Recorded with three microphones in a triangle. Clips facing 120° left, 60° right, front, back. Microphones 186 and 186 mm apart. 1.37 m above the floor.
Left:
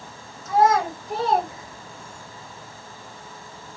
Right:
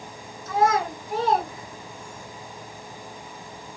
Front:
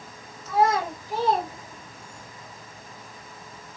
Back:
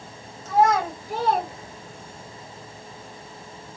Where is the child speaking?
135° left, 2.5 m; by 2.3 s 145° right, 0.6 m.